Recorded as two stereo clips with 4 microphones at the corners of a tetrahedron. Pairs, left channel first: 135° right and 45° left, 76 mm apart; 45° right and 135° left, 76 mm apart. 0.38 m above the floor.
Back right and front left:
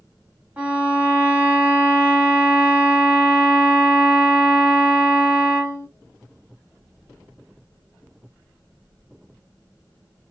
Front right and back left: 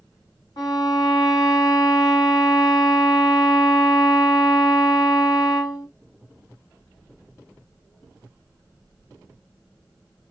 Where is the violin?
25° right, 1.6 m.